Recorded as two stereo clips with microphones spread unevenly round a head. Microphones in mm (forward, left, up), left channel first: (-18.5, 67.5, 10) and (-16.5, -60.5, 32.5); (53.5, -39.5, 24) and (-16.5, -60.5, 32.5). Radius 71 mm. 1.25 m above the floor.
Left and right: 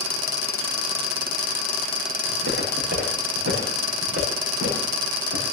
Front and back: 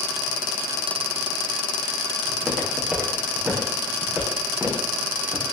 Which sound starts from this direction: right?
Footsteps, at 2.3 s.